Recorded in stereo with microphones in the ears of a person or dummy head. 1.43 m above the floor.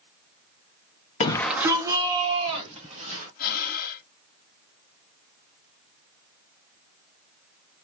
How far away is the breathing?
About 1.1 m.